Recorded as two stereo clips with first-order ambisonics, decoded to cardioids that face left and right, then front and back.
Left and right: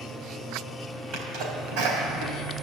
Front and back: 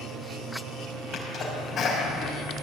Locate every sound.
1.1 s a sneeze: 60° right, 4 m